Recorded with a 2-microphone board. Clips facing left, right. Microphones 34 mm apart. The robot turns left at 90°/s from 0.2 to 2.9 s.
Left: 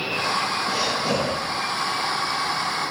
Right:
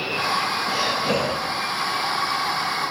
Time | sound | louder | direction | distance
0.7 | breathing | right 1 dB | 5° right | 8 m